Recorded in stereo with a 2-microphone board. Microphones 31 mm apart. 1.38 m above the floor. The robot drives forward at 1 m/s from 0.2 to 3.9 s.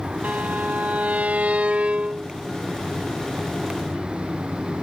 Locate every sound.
0.2 s a violin: 85° right; by 2.3 s 40° right (ahead or behind)